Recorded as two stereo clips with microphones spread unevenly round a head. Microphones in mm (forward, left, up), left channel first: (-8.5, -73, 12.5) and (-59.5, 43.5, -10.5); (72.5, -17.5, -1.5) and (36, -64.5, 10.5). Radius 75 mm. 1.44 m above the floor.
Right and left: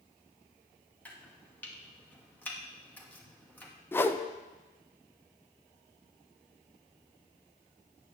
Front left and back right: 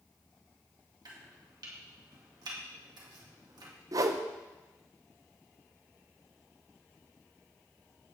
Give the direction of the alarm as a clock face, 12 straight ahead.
I don't hear an alarm.